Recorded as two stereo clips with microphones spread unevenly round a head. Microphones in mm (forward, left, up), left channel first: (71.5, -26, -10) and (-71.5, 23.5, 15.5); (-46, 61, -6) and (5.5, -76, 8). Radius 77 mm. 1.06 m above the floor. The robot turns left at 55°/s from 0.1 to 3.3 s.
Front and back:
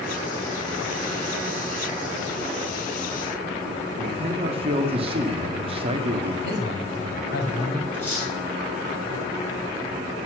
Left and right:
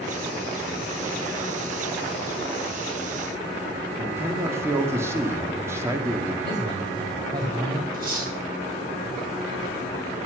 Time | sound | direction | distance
4.0 | a man speaking | 145° right | 1.9 m
6.4 | a man speaking | 5° right | 5 m
7.9 | cutlery clinking | 95° right | 6.5 m